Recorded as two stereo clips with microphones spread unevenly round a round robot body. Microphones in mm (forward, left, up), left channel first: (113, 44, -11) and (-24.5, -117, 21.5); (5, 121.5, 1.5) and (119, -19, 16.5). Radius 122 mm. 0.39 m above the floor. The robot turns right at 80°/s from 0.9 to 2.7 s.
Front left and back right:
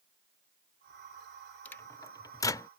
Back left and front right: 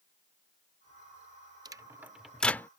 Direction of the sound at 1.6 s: Straight ahead.